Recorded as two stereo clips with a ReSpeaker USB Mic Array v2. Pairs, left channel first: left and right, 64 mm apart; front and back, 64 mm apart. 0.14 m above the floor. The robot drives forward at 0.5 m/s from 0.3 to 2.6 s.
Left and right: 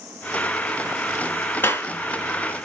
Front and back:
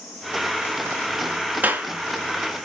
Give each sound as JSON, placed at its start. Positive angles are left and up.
{"t": 1.6, "sound": "a clap", "azimuth_deg": 130, "distance_m": 1.7}